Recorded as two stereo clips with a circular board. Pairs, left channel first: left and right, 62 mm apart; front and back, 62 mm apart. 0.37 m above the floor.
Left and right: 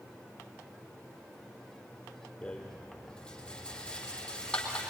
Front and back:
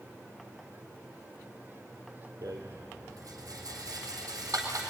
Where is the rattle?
165° left, 4 m.